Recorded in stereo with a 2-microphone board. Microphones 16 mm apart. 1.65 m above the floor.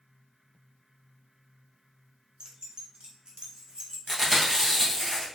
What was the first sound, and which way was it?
Keys jangling, 55° right (ahead or behind).